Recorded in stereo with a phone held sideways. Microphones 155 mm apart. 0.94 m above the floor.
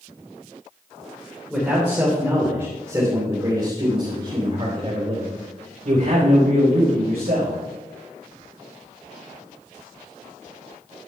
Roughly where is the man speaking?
Centre.